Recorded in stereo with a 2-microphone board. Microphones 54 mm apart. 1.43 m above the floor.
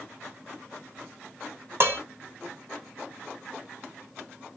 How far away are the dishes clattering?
About 0.9 m.